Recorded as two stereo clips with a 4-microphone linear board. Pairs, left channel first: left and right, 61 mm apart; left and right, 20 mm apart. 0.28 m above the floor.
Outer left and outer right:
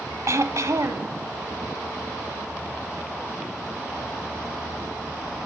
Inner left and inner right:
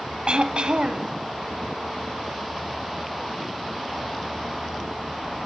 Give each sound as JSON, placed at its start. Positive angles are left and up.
{"t": 0.3, "sound": "throat clearing", "side_deg": -55, "distance_m": 0.8}